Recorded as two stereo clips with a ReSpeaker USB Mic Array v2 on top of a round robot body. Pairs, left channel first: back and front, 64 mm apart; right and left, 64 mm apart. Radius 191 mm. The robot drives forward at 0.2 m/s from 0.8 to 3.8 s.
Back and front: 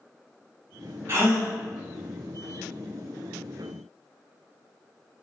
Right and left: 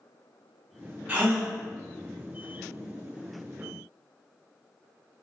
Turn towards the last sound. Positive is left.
turn(degrees=65)